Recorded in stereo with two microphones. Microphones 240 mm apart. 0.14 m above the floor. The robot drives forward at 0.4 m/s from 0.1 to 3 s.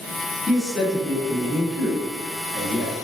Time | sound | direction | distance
0.5 | a man speaking | centre (ahead or behind) | 1.2 m